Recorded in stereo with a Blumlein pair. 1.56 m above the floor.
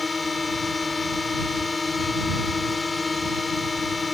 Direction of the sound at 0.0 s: 15° left.